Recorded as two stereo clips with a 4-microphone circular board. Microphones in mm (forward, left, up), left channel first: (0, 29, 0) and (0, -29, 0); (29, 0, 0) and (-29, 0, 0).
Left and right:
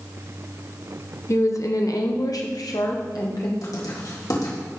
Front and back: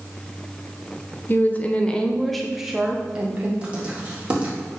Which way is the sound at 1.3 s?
50° left.